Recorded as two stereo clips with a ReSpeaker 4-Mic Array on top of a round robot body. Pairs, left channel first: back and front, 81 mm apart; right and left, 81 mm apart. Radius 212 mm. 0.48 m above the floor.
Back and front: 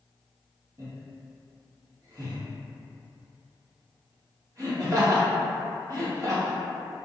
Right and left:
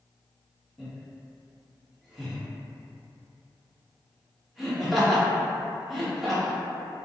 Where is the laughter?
5° left, 1.6 m.